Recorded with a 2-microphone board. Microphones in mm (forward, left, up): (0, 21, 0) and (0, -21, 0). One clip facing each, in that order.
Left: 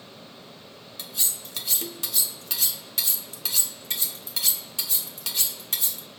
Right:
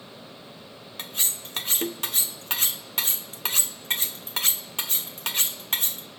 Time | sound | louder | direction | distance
1.0 | cutlery clinking | right 2 dB | 40° right (ahead or behind) | 0.6 m